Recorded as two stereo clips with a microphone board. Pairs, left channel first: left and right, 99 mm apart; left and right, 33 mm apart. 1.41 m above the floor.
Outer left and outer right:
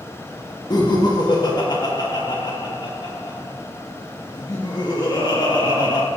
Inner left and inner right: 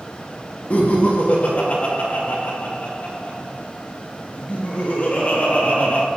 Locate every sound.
0.7 s laughter: 45° left (ahead or behind), 2.0 m